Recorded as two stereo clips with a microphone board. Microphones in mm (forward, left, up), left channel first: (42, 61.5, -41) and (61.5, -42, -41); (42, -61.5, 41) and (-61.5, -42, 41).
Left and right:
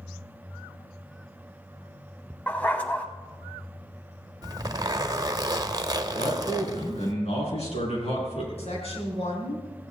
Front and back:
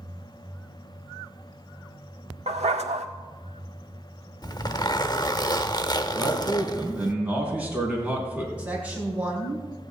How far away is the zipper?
About 0.8 m.